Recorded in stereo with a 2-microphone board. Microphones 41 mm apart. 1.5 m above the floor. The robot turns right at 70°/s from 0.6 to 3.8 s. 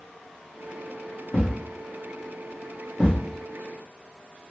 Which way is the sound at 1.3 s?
45° left (ahead or behind).